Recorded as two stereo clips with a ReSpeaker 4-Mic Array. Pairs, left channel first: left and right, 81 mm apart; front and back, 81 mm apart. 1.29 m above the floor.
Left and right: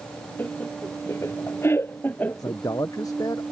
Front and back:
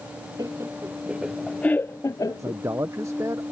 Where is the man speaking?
130° left.